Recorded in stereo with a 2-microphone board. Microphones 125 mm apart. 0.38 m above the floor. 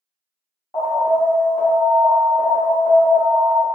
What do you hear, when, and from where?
0.7 s an alarm: 30° left (ahead or behind), 1.8 m